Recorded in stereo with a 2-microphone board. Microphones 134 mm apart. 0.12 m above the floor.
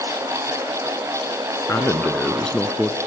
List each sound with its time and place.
1.7 s a man speaking: 20° left (ahead or behind), 1.3 m; by 3.0 s 5° right (ahead or behind), 1.3 m